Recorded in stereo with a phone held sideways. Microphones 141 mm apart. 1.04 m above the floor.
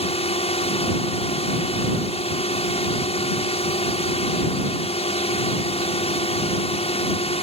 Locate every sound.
0.0 s a drone: 45° left (ahead or behind)